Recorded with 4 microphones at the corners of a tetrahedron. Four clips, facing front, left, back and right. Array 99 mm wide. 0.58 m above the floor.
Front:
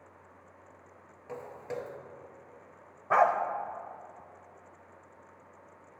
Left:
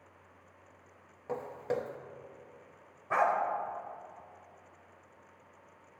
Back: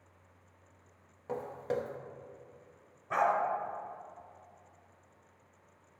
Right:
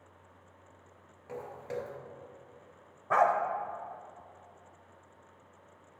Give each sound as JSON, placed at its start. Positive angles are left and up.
{"t": 1.3, "sound": "footsteps", "azimuth_deg": 125, "distance_m": 0.7}
{"t": 3.1, "sound": "a dog barking", "azimuth_deg": -30, "distance_m": 0.6}